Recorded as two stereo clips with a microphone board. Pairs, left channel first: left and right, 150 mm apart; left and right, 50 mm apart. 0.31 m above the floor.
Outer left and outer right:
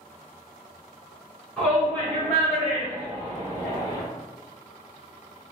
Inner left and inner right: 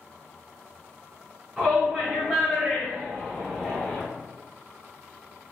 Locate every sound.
1.6 s a shout: 5° left (ahead or behind), 1.5 m; by 4.0 s 25° left (ahead or behind), 1.7 m